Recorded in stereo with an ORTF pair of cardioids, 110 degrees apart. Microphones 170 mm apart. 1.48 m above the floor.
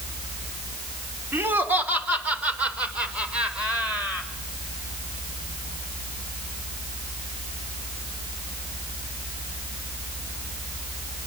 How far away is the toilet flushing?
No toilet flushing in this recording.